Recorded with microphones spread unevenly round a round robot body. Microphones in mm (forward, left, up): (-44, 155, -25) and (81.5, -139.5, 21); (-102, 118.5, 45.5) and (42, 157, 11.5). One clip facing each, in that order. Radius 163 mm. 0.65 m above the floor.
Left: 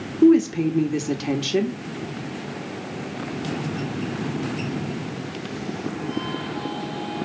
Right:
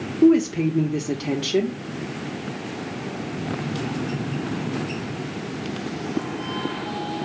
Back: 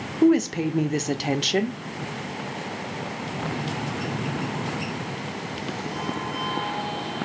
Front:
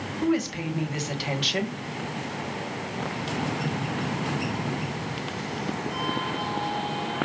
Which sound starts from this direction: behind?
A woman speaking, at 0.2 s.